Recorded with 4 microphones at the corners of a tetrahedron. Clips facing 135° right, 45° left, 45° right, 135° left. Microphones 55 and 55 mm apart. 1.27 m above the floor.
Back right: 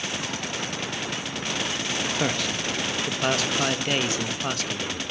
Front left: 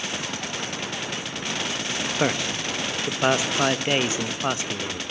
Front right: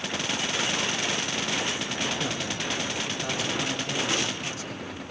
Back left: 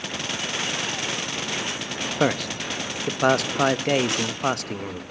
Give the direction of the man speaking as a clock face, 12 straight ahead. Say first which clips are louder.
Front left 2 dB, back left 7 dB; 8 o'clock.